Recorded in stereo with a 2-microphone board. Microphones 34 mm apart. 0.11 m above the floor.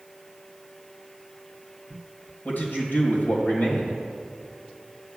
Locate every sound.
2.5 s a man speaking: 65° left (ahead or behind), 3 m